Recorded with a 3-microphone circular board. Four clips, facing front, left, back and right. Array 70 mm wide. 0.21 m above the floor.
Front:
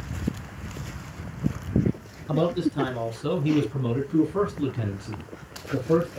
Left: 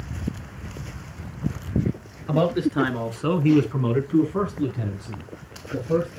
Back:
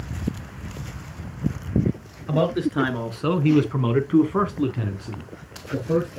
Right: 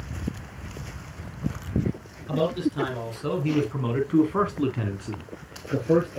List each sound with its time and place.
2.3 s a man speaking: 130° left, 3 m; by 6.2 s 95° right, 3.5 m